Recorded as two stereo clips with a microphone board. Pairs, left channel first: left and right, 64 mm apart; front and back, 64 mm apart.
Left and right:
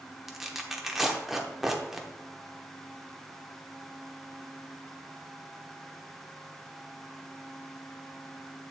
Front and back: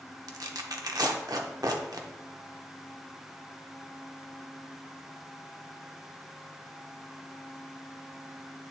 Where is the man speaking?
No man speaking in this recording.